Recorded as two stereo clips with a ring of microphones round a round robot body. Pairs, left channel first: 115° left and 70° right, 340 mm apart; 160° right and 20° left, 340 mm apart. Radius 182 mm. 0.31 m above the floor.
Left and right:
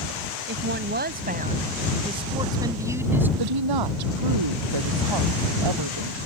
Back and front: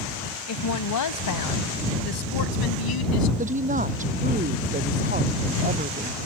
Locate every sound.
0.5 s a woman speaking: 120° right; by 3.3 s 150° right
3.4 s a woman speaking: 45° right